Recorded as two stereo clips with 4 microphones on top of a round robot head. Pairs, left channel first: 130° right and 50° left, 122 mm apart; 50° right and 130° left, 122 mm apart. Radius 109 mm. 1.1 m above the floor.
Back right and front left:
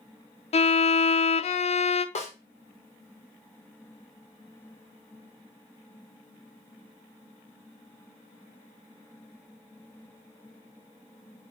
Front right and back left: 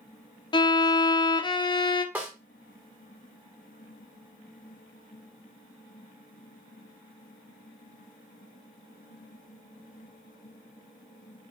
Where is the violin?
100° right, 0.6 m.